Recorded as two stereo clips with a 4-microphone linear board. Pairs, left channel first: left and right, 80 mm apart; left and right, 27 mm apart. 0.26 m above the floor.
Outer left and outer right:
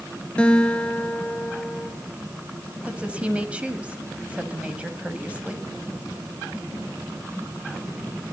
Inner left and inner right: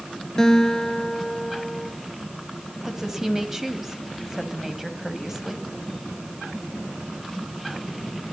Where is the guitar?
15° left (ahead or behind), 1.6 m.